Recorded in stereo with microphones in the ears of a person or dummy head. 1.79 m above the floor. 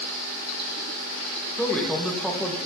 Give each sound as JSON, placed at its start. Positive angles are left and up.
{"t": 1.6, "sound": "a man speaking", "side_deg": 0, "distance_m": 1.7}